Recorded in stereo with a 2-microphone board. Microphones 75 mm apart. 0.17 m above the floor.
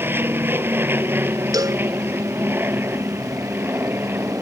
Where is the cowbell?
55° right (ahead or behind).